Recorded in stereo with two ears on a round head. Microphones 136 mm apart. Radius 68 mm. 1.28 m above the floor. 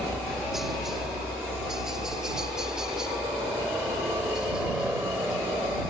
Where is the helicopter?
Centre (ahead or behind); by 5.9 s 5° right (ahead or behind).